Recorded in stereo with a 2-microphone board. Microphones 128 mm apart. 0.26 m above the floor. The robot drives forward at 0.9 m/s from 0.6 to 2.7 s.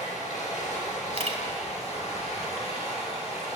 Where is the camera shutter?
55° right (ahead or behind), 0.9 m.